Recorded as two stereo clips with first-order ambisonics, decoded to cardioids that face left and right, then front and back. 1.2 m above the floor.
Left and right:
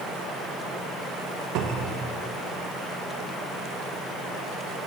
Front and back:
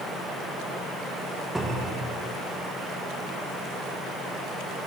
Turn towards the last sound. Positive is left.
turn(degrees=-95)